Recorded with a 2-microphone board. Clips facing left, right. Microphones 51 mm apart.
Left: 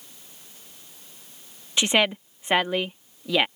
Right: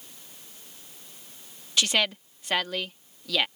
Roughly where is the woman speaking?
Left.